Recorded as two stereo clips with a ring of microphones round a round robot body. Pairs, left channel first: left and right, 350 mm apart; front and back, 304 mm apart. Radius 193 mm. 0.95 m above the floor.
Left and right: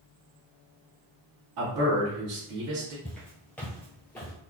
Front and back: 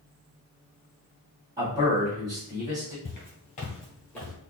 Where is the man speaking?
100° right, 1.7 m.